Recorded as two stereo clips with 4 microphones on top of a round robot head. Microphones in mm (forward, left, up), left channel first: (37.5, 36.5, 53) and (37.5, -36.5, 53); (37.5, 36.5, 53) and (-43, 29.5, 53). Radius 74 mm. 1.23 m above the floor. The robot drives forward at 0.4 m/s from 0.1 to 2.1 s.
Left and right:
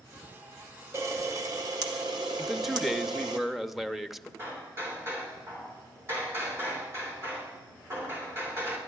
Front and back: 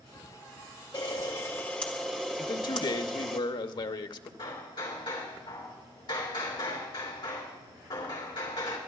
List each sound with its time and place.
0.9 s a camera shutter: 45° right, 0.8 m; by 3.4 s 90° right, 0.7 m
2.4 s a man speaking: straight ahead, 0.7 m
4.4 s hammering: 35° right, 3 m